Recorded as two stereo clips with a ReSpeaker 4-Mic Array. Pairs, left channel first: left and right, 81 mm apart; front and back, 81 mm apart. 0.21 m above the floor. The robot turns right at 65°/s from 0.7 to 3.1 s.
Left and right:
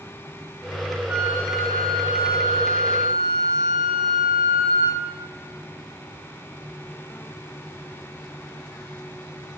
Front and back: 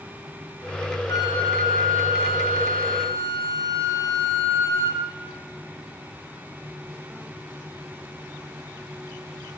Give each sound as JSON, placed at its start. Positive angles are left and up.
{"t": 1.1, "sound": "a flute", "azimuth_deg": -30, "distance_m": 4.0}